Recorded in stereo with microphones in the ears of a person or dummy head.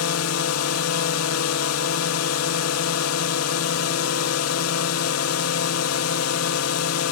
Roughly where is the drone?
Left.